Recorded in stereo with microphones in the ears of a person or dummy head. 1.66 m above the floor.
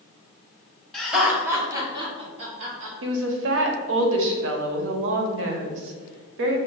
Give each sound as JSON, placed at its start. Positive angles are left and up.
{"t": 0.9, "sound": "laughter", "side_deg": 10, "distance_m": 1.3}
{"t": 3.0, "sound": "a woman speaking", "side_deg": -70, "distance_m": 0.7}